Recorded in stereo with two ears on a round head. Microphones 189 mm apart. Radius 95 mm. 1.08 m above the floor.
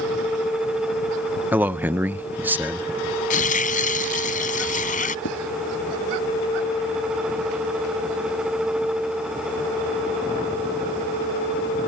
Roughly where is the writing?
Left.